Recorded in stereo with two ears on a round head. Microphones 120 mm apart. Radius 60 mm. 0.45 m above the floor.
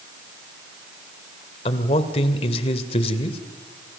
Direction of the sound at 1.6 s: 45° left (ahead or behind).